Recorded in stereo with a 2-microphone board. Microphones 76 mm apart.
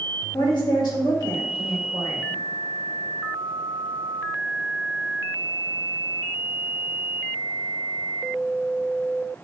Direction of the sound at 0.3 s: 65° left (ahead or behind).